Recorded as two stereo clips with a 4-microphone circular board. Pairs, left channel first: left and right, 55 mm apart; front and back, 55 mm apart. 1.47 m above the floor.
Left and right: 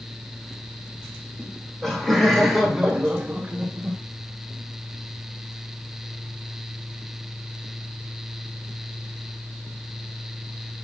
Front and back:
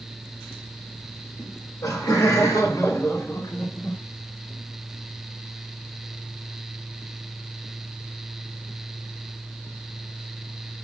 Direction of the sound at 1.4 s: 15° left.